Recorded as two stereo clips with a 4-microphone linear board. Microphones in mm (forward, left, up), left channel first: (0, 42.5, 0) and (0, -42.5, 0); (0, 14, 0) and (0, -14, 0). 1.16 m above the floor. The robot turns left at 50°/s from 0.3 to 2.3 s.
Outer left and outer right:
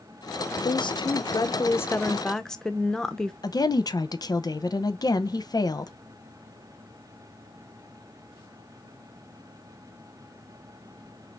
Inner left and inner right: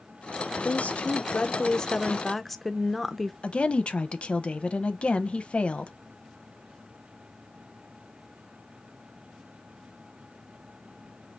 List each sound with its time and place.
0.6 s a woman speaking: 90° left, 0.5 m; by 3.3 s 5° left, 0.5 m
3.4 s a woman speaking: 50° left (ahead or behind), 0.6 m